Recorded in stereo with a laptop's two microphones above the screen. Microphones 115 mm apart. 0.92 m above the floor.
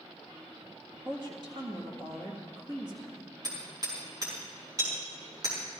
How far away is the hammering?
About 5 m.